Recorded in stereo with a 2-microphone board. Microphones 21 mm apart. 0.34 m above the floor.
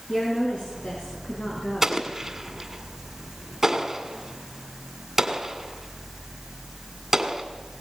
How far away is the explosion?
About 1.9 m.